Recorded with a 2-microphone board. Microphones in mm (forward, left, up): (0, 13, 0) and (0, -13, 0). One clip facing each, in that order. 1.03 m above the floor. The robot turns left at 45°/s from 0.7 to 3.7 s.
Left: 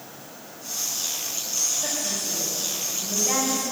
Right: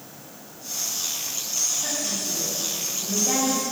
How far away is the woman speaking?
About 5 m.